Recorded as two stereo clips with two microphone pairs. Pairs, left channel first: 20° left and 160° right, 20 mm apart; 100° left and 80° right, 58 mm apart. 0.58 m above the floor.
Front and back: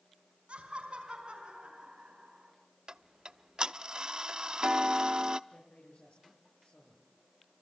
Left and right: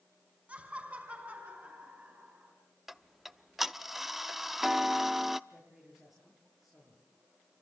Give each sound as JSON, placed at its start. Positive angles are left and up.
{"t": 0.5, "sound": "laughter", "azimuth_deg": -145, "distance_m": 5.5}
{"t": 2.9, "sound": "ticking", "azimuth_deg": -165, "distance_m": 0.6}
{"t": 5.5, "sound": "a man speaking", "azimuth_deg": 5, "distance_m": 10.0}